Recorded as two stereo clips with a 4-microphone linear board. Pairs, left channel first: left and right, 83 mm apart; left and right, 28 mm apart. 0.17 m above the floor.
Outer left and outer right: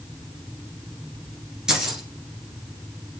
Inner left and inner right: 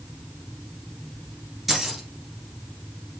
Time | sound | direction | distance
1.7 | keys jangling | 10° right (ahead or behind) | 2 m